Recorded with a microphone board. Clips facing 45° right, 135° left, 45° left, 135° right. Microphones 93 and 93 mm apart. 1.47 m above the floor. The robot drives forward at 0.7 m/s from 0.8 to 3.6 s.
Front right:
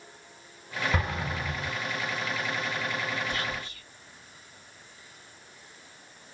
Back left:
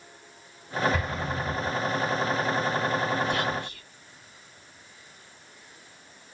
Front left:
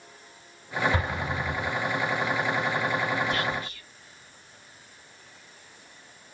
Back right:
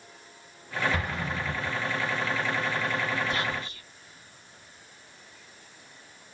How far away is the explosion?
About 3 m.